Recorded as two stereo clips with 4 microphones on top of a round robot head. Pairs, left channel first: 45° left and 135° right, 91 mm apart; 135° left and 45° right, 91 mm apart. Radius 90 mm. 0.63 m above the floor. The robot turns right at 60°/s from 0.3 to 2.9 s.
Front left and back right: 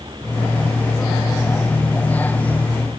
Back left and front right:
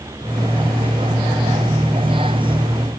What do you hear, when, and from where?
Only background noise.